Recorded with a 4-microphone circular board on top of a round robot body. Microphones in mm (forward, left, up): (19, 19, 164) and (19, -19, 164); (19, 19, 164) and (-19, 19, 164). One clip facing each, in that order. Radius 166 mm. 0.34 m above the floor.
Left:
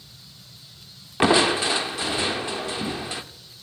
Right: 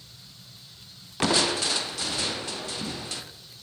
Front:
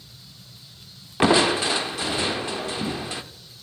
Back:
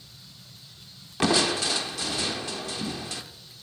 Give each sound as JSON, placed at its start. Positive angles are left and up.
{"t": 1.2, "sound": "crushing", "azimuth_deg": 45, "distance_m": 0.8}